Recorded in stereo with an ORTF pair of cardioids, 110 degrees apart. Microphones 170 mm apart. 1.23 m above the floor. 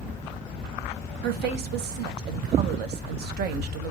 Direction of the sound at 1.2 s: 65° right.